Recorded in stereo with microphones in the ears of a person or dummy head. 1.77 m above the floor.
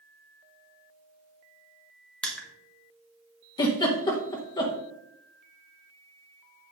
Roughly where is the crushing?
Centre.